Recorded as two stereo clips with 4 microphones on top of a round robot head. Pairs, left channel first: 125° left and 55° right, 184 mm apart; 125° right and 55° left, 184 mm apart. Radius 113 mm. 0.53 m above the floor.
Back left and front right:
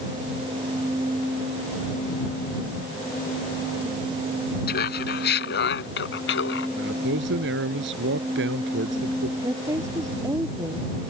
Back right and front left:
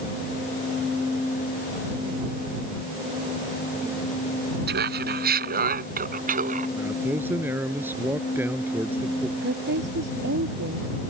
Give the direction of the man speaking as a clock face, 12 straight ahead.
1 o'clock.